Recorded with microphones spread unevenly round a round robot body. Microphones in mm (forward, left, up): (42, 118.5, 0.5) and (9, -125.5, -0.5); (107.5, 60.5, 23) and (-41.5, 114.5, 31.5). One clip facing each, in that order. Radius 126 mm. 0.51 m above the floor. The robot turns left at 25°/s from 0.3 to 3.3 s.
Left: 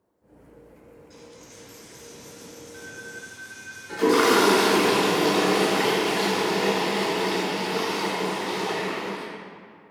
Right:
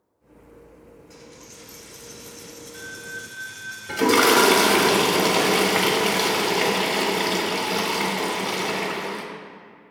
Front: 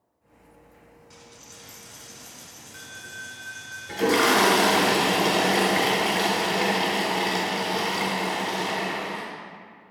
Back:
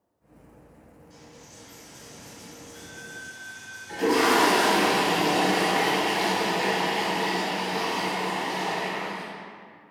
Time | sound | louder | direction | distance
1.1 | a dropped coin | even, back 2 dB | 25° right | 1.4 m
3.9 | a toilet flushing | even, even | 85° right | 1.0 m